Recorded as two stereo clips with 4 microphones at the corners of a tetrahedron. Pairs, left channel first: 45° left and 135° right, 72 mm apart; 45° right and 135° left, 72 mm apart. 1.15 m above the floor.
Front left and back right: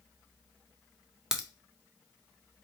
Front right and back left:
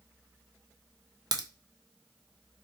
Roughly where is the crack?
Behind left.